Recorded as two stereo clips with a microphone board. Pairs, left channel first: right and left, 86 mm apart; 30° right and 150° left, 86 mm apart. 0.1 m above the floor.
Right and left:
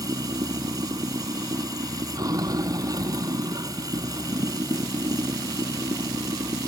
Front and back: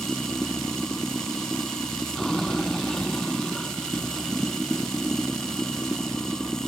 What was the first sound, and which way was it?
Running water, 55° left.